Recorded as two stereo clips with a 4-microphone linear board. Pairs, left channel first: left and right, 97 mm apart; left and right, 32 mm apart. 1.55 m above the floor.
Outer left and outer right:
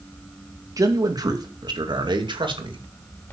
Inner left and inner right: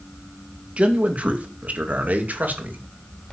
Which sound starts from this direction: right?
A man speaking, at 0.8 s.